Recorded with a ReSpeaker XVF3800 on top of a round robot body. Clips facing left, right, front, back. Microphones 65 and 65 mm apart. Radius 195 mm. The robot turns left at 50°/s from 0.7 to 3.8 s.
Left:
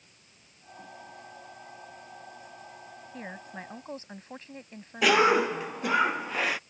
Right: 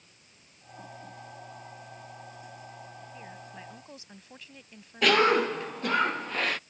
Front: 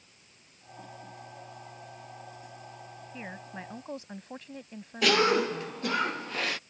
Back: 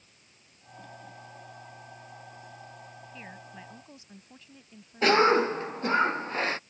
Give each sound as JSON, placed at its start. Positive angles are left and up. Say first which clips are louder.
{"t": 3.1, "sound": "a woman speaking", "louder": "left 8 dB, front 6 dB", "azimuth_deg": 70}
{"t": 5.0, "sound": "a cough", "louder": "left 1 dB, back 3 dB", "azimuth_deg": 165}